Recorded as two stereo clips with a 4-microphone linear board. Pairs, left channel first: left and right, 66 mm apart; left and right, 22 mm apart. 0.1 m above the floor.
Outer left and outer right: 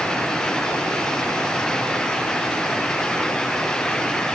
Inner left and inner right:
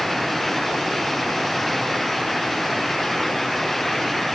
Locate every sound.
Only background noise.